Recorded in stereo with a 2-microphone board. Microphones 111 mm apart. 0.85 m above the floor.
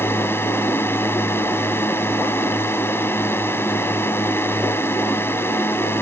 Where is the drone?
20° left (ahead or behind).